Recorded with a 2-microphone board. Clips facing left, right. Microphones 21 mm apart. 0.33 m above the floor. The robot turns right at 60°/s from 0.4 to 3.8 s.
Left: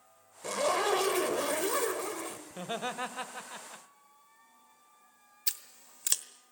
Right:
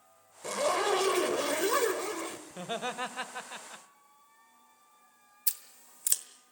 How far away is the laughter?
About 1.1 m.